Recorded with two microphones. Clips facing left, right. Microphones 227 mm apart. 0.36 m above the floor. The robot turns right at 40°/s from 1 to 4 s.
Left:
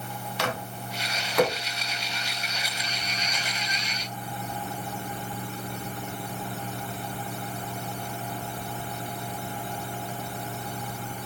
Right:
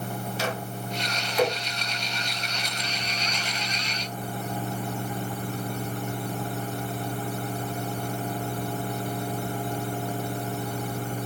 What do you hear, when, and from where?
0.4 s a microwave: 70° left (ahead or behind), 2.5 m; by 1.5 s 65° left (ahead or behind), 2.5 m